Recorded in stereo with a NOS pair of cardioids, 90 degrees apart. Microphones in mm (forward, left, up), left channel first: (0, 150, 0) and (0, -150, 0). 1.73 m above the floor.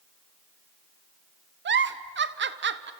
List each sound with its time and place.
1.6 s a giggle: 40° right, 1.3 m